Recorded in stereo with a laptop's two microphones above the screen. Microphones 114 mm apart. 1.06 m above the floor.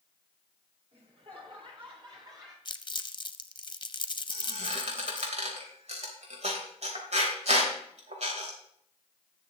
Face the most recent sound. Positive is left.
turn(degrees=-65)  # may be behind; listen again after turning